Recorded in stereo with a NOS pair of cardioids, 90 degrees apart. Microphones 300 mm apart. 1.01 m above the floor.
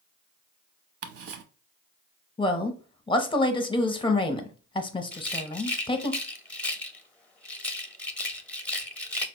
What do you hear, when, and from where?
1.0 s ticking: 50° right, 0.7 m
2.4 s a woman speaking: 15° left, 0.7 m
5.1 s a rattle: 5° left, 0.6 m